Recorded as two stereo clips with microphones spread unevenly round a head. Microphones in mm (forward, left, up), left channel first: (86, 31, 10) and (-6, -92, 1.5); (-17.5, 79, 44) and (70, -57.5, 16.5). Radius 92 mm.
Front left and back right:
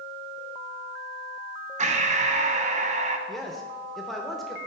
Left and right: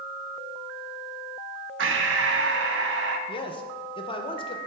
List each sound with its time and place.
1.8 s breathing: 80° right, 0.6 m
3.3 s a man speaking: 145° left, 0.6 m